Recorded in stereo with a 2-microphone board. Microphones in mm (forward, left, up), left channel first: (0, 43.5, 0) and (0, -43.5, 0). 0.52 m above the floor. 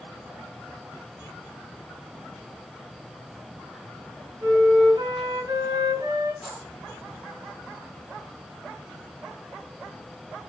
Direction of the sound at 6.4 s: 15° right (ahead or behind).